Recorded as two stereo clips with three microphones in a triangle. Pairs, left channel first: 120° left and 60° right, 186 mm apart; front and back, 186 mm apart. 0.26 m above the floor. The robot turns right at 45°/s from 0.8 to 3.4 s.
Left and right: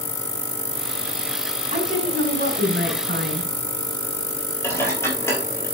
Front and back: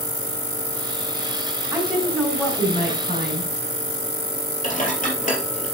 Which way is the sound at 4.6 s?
45° left.